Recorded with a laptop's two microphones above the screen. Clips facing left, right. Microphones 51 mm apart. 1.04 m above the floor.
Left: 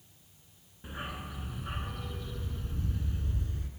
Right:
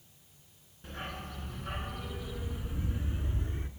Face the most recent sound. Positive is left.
turn(degrees=-25)  # may be behind; listen again after turning